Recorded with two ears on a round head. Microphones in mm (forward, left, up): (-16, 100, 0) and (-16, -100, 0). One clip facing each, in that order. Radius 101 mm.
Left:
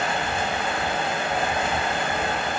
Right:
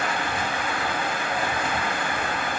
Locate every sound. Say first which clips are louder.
0.0 s running water: left 2 dB; 25° left (ahead or behind), 1.1 m